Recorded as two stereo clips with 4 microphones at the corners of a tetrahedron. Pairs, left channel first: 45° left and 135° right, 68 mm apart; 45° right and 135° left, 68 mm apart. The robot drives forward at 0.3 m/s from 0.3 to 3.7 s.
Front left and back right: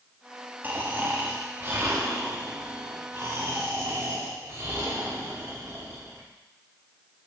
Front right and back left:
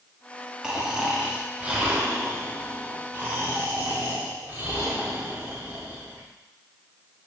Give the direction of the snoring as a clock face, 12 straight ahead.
5 o'clock.